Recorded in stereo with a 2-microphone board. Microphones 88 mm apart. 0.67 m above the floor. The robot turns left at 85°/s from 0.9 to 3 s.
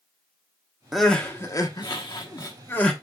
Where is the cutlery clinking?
No cutlery clinking in this recording.